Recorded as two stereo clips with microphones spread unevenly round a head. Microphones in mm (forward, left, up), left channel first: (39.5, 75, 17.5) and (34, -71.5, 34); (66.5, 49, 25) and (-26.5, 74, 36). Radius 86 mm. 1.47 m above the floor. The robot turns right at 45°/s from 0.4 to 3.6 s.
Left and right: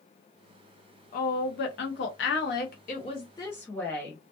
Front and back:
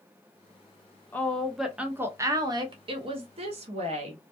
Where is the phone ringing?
I don't hear a phone ringing.